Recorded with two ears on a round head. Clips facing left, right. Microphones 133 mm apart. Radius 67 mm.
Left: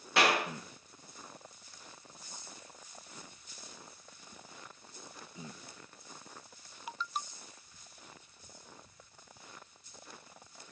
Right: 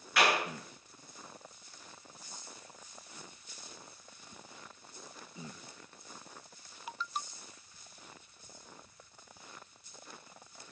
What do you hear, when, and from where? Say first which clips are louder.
0.2 s a clap: left 1 dB; 25° left (ahead or behind), 7.5 m